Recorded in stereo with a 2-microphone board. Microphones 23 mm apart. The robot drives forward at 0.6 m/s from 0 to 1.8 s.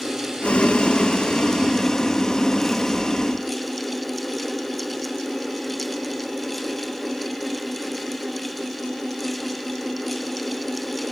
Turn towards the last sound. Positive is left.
turn(degrees=30)  # may be behind; listen again after turning